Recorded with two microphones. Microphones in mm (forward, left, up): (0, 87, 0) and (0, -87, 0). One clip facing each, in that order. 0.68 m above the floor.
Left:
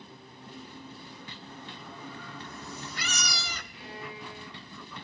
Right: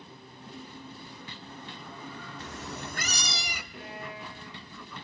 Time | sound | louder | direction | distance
2.4 | a cat meowing | right 5 dB | 80° right | 0.8 m
3.7 | a violin | right 2 dB | 50° right (ahead or behind) | 8 m